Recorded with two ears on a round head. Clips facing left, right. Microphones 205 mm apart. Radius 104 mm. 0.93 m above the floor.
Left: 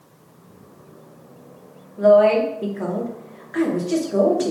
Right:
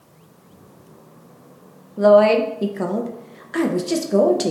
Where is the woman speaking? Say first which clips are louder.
Right 1 dB; 50° right (ahead or behind), 0.7 m.